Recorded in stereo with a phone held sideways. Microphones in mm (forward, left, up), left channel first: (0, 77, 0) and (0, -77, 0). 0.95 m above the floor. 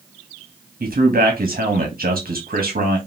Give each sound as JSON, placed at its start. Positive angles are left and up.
{"t": 0.8, "sound": "a man speaking", "side_deg": -70, "distance_m": 1.2}